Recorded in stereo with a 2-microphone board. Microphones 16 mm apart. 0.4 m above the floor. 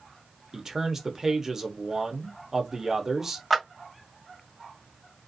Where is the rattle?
I don't hear a rattle.